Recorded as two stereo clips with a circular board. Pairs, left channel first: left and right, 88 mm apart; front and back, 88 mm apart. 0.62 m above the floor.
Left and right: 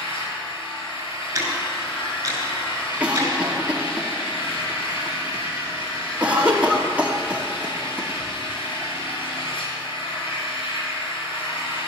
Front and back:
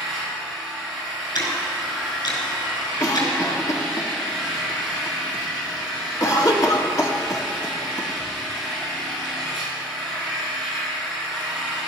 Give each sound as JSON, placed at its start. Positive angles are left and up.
{"t": 0.0, "sound": "an engine running", "azimuth_deg": 85, "distance_m": 6.0}
{"t": 1.4, "sound": "ticking", "azimuth_deg": -35, "distance_m": 5.0}
{"t": 3.0, "sound": "a cough", "azimuth_deg": -25, "distance_m": 1.3}